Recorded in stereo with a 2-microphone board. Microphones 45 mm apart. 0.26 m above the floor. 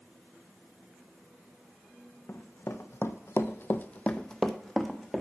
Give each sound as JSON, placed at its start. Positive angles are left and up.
{"t": 2.3, "sound": "running footsteps", "side_deg": 70, "distance_m": 1.0}